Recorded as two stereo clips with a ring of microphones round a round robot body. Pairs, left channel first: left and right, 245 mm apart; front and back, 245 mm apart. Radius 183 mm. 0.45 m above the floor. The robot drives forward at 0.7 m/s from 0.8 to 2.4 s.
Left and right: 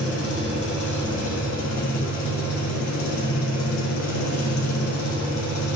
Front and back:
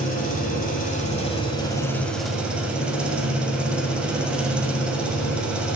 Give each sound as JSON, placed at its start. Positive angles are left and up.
{"t": 0.0, "sound": "an engine running", "azimuth_deg": 60, "distance_m": 1.9}